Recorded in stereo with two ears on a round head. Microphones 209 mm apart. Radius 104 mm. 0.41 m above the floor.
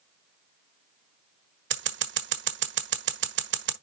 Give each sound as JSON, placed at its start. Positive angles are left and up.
{"t": 1.7, "sound": "scissors", "side_deg": -50, "distance_m": 1.4}